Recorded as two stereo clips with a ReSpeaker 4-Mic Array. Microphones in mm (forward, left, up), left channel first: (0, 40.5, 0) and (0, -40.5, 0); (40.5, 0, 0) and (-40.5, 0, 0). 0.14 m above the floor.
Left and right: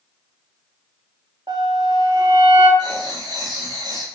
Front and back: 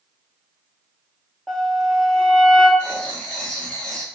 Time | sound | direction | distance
1.5 | a flute | 85° right | 0.6 m
2.8 | writing | 80° right | 0.7 m